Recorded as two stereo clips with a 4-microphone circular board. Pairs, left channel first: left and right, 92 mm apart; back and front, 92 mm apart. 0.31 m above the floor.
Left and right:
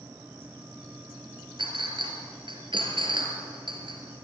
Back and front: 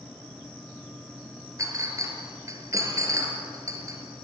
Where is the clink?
55° right, 3.5 m.